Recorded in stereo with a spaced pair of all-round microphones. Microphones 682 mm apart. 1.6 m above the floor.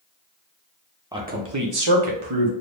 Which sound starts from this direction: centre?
A man speaking, at 1.1 s.